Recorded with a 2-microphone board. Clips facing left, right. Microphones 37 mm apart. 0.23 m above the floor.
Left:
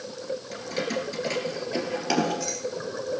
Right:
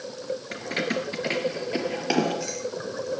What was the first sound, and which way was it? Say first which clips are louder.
Keys jangling: right 2 dB; 40° right (ahead or behind).